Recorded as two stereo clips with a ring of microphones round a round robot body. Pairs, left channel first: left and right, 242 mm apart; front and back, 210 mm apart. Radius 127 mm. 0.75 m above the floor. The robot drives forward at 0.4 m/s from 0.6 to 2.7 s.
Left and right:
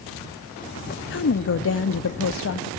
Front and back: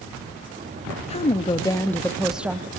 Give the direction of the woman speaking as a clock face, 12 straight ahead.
10 o'clock.